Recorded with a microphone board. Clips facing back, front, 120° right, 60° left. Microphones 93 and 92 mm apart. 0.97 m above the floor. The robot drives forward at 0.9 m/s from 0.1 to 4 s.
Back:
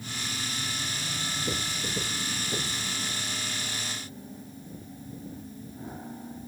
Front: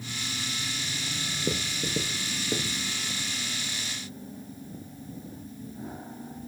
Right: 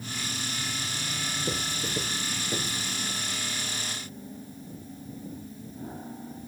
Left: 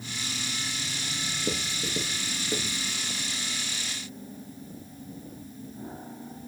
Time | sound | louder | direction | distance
1.5 | writing | front 6 dB, left 3 dB | 10° right | 6 m